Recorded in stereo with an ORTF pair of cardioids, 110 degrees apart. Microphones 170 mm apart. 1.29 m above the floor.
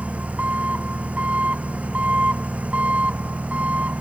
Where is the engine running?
10° right.